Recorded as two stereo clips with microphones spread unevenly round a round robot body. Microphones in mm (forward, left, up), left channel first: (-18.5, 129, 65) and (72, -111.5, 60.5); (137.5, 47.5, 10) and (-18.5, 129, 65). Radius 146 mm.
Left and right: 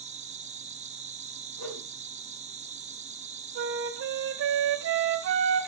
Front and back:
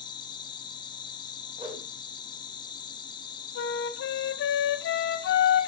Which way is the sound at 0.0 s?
25° right.